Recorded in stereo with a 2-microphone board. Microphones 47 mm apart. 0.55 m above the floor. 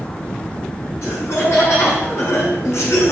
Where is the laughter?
60° left (ahead or behind), 5.5 m.